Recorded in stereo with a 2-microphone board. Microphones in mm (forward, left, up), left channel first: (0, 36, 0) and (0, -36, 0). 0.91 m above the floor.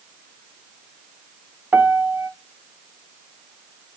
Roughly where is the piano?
Right.